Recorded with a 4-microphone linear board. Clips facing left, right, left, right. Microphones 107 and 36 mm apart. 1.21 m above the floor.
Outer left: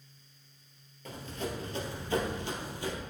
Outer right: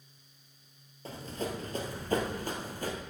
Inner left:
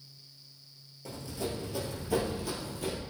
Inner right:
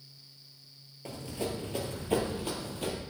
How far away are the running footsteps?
About 1.5 m.